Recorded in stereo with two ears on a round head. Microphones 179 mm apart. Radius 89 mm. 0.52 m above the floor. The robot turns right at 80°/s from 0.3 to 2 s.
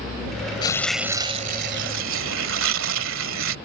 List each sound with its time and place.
0.6 s tearing paper: 155° left; by 3.5 s 95° right